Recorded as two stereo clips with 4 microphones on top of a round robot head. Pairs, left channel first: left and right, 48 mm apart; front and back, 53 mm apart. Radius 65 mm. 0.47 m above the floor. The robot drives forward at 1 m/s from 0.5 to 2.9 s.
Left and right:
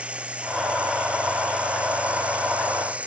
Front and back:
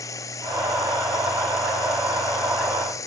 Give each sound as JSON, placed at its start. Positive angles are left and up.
{"t": 0.0, "sound": "running water", "azimuth_deg": -25}